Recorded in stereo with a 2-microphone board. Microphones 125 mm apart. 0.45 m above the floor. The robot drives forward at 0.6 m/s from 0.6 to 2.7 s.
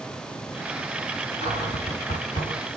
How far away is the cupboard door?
About 2.5 m.